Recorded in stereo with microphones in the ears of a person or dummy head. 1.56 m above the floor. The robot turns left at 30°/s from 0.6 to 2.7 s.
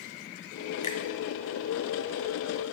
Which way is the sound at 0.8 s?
35° left (ahead or behind).